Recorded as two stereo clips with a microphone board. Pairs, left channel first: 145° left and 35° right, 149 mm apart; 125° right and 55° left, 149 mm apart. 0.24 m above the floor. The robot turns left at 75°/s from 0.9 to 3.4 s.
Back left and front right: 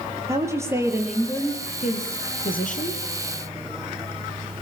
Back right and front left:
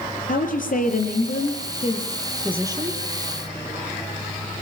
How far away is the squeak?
I don't hear a squeak.